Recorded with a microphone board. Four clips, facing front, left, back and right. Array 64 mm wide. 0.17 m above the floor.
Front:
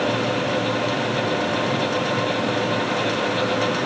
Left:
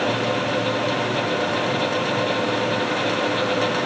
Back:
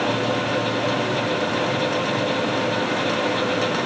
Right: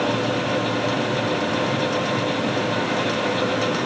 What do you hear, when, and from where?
Only background noise.